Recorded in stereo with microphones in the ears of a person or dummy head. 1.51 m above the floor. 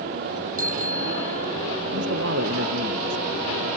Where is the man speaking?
65° right (ahead or behind).